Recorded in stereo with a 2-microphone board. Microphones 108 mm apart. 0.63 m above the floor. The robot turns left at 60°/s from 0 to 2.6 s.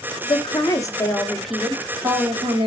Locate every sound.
0.3 s a woman speaking: 70° left, 1.8 m; by 2.7 s 65° right, 1.8 m